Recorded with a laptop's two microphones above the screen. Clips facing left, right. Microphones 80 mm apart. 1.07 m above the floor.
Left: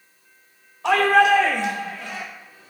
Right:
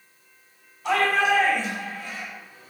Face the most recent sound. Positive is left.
turn(degrees=75)  # may be behind; listen again after turning